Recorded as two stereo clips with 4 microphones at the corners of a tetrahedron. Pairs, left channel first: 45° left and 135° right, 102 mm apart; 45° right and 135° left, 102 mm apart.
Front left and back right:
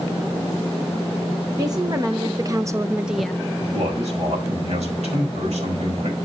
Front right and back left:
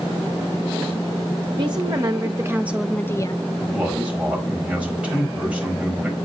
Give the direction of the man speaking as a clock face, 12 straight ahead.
5 o'clock.